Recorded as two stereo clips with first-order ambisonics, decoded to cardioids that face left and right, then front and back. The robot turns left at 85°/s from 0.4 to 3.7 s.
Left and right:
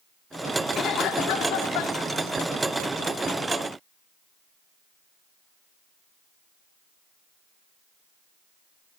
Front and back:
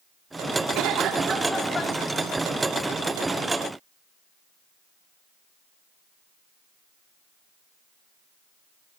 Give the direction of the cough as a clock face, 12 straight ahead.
7 o'clock.